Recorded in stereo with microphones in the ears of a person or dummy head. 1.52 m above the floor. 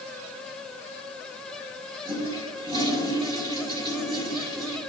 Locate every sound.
2.0 s a toilet flushing: 25° right (ahead or behind), 1.6 m